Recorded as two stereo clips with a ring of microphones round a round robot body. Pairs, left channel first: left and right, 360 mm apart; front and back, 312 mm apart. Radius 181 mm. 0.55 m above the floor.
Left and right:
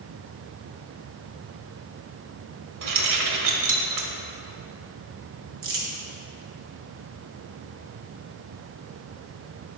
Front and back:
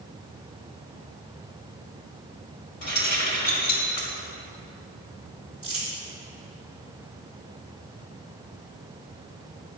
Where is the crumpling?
75° right, 2.5 m.